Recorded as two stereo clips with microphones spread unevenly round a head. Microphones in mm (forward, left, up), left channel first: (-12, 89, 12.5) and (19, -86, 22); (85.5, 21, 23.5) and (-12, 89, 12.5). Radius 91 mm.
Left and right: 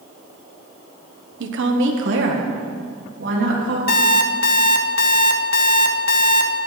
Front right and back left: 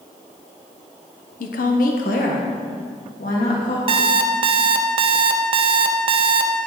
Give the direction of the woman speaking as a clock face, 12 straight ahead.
2 o'clock.